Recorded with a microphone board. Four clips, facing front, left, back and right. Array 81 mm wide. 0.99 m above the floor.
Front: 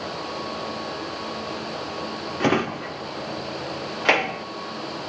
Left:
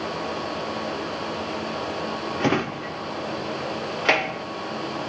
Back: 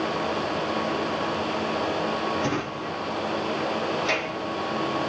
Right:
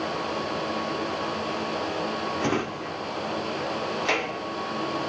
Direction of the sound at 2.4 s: 30° left.